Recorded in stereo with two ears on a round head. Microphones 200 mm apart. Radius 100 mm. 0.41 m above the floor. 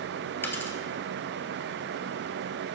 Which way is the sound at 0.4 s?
10° left (ahead or behind).